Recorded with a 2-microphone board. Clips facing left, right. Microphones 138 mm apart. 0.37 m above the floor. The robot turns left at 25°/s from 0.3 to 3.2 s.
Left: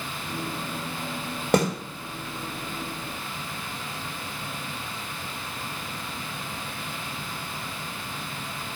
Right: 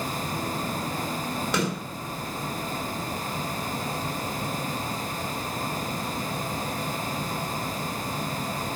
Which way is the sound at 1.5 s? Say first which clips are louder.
Left 6 dB; 55° left (ahead or behind).